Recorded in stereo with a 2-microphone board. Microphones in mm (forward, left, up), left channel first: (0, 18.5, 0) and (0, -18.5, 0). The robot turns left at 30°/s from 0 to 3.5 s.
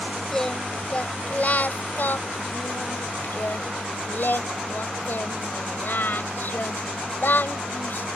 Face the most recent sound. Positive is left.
turn(degrees=70)